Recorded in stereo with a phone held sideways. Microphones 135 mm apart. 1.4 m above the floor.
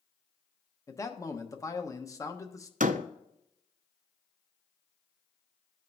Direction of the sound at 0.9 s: 25° left (ahead or behind).